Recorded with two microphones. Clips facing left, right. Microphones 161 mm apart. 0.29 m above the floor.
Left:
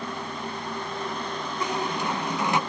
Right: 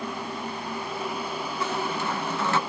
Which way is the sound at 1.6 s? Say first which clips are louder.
Left 1 dB; 15° left (ahead or behind).